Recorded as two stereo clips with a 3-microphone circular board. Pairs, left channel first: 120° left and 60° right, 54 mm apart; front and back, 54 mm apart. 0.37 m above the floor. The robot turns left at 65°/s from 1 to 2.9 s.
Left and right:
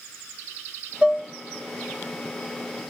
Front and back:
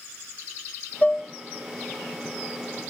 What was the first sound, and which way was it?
Dishes clattering, 15° right.